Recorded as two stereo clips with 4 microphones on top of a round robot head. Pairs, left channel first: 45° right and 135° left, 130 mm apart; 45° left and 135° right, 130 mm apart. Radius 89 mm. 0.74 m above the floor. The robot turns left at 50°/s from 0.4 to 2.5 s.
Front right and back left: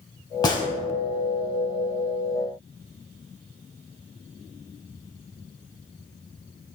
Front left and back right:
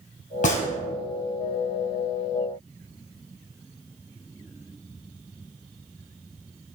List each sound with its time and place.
0.4 s a gunshot: 15° left, 1.7 m; by 0.7 s 5° left, 1.7 m